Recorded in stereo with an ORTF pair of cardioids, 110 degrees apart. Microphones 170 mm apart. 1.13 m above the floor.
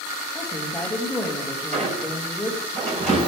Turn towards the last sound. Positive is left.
turn(degrees=-40)